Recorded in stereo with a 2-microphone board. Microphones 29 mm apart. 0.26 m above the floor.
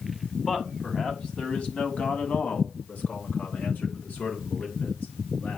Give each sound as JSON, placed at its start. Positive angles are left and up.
{"t": 0.5, "sound": "a man speaking", "side_deg": 20, "distance_m": 2.0}